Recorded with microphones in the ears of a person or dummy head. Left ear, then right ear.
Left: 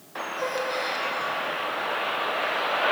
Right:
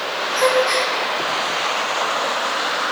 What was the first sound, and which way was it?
A gasp, 60° right (ahead or behind).